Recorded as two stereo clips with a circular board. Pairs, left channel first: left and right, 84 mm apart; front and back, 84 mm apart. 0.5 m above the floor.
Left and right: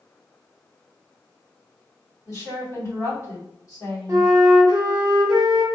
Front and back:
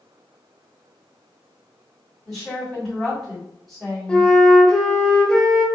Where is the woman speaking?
85° left, 1.7 m.